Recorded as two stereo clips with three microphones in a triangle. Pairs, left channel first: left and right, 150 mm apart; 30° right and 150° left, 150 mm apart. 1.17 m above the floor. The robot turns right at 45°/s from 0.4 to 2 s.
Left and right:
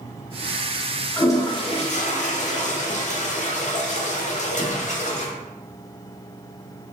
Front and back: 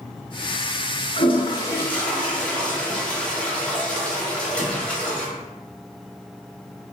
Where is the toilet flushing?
15° left, 0.5 m; by 5.3 s 50° left, 0.5 m.